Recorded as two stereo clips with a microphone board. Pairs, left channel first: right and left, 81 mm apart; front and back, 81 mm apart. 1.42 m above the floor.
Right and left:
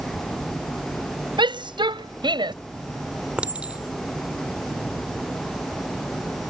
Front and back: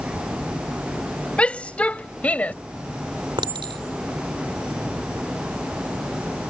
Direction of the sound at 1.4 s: 75° left.